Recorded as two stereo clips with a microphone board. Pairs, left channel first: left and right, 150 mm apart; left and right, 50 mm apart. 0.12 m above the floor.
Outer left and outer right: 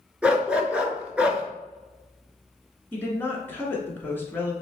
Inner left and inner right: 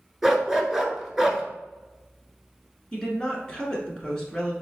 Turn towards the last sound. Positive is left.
turn(degrees=15)  # may be behind; listen again after turning